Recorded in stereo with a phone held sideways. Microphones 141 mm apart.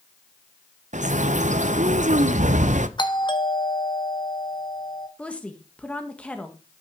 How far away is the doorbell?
About 1.1 m.